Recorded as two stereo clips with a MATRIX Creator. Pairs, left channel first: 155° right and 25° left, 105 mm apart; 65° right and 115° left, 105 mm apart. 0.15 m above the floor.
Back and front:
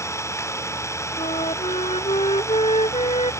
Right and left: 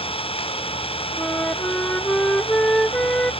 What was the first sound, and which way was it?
An engine running, 95° right.